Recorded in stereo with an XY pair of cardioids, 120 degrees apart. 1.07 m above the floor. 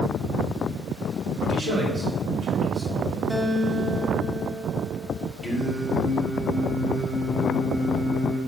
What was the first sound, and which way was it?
A man speaking, 65° right.